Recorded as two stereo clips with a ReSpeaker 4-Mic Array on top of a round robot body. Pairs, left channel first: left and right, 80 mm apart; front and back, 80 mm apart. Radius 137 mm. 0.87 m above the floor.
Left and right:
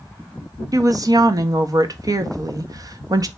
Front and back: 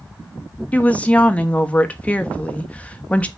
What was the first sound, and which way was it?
A woman speaking, 70° right.